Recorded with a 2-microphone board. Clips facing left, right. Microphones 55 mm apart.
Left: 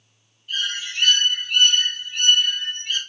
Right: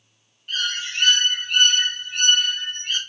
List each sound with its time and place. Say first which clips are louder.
0.5 s a bird: right 1 dB; 60° right (ahead or behind), 2 m